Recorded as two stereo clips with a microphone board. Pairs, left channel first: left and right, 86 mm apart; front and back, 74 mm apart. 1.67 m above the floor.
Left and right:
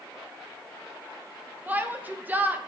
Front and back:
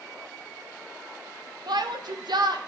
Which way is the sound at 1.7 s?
160° right.